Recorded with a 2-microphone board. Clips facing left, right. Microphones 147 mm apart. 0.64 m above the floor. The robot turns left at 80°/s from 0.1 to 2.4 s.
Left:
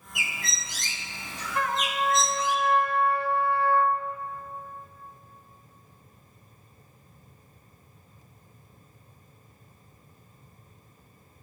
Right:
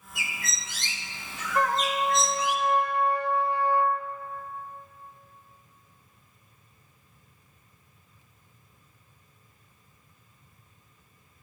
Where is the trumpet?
80° right, 0.6 m; by 4.0 s 150° right, 0.6 m.